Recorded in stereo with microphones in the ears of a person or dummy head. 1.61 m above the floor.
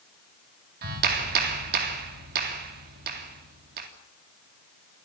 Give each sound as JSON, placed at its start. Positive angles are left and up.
{"t": 0.8, "sound": "a clap", "side_deg": -50, "distance_m": 3.0}